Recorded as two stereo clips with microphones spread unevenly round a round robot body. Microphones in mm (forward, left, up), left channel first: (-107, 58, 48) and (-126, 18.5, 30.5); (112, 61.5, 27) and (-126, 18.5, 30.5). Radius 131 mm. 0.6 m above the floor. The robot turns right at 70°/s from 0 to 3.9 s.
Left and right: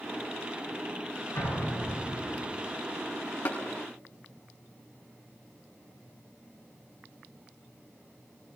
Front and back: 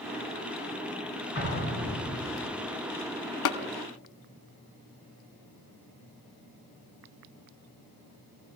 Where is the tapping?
25° left, 0.9 m; by 3.6 s 35° left, 0.9 m.